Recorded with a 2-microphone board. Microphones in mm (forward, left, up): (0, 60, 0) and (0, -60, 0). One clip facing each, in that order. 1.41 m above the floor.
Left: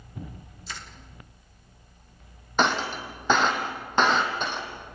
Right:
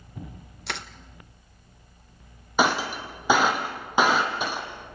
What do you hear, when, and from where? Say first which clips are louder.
0.7 s crushing: right 7 dB; 70° right (ahead or behind), 1.2 m
2.6 s breaking glass: right 1 dB; 10° right (ahead or behind), 3.5 m